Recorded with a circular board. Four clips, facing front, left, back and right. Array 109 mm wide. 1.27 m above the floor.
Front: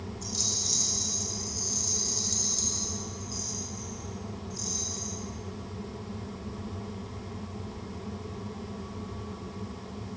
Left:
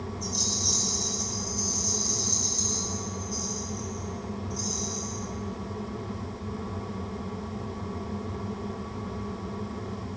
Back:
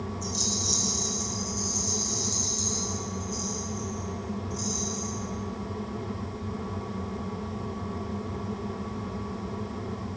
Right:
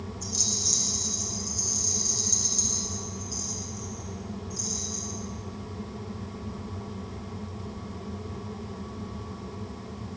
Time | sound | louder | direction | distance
0.2 | a rattle | left 3 dB, back 6 dB | 40° right | 10 m